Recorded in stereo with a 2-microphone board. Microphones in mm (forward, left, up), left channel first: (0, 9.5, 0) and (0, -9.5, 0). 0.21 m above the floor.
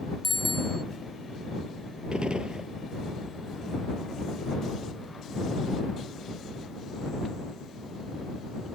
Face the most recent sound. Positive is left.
turn(degrees=-60)  # may be behind; listen again after turning